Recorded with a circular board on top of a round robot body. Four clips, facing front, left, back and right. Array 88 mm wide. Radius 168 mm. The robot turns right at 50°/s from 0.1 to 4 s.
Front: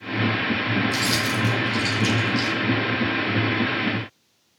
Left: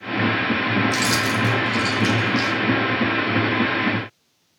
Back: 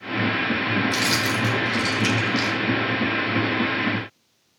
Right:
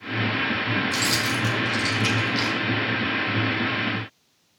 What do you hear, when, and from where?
0.9 s keys jangling: 160° left, 1.2 m; by 2.6 s 120° right, 1.2 m